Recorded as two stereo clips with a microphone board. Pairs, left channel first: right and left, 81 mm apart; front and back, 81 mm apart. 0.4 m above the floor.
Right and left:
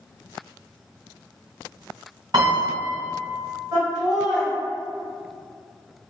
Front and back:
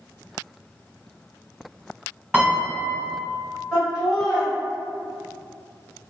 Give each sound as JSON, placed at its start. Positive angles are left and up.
{"t": 2.3, "sound": "a piano", "azimuth_deg": 105, "distance_m": 1.8}
{"t": 3.7, "sound": "laughter", "azimuth_deg": 95, "distance_m": 1.6}